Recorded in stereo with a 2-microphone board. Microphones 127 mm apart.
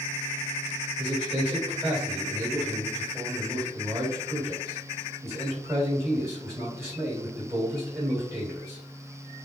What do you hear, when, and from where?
1.0 s a man speaking: 20° right (ahead or behind), 1.9 m